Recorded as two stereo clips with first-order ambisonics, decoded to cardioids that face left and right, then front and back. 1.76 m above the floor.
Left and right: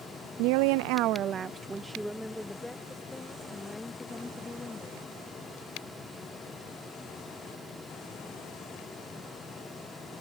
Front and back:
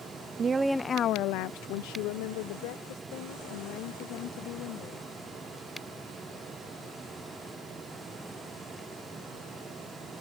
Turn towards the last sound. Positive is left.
turn(degrees=15)